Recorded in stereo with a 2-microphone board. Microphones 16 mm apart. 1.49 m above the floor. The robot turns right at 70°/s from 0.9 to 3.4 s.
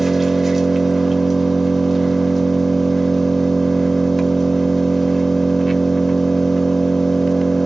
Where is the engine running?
15° right (ahead or behind), 1.2 m; by 7.7 s 15° left (ahead or behind), 1.2 m.